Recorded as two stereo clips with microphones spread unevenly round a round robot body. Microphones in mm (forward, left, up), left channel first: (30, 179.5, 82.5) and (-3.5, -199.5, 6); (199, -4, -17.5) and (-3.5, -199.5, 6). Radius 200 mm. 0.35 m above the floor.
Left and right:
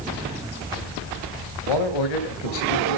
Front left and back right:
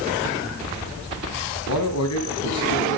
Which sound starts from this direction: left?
A man speaking, at 1.7 s.